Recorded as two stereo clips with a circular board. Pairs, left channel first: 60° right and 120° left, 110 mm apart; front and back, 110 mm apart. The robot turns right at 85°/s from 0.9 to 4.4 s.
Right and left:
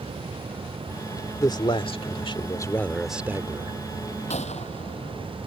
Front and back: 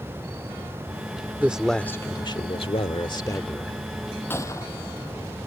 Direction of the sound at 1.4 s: 110° right.